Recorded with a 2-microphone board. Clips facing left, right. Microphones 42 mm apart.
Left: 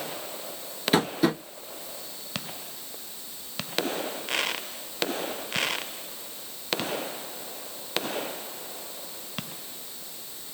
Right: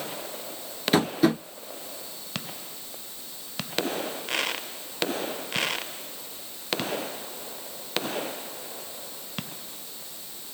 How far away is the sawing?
No sawing in this recording.